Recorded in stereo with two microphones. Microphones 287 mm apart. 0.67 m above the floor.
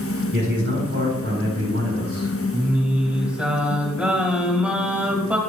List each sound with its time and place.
0.3 s a man speaking: 45° right (ahead or behind), 3.5 m; by 2.3 s 55° right (ahead or behind), 5 m
2.5 s singing: 5° right (ahead or behind), 1.7 m